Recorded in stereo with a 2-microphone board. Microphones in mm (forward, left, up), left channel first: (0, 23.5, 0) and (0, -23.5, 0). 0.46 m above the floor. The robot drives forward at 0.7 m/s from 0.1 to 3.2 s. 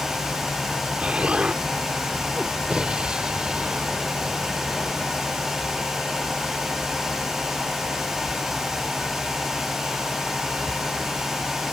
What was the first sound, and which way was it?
An explosion, 25° right (ahead or behind).